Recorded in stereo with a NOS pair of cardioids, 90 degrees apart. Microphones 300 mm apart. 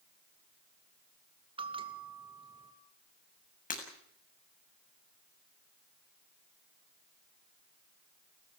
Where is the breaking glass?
25° left, 7 m.